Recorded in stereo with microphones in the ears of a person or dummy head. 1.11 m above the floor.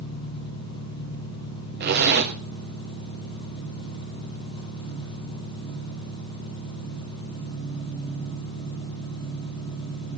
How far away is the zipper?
About 1.5 m.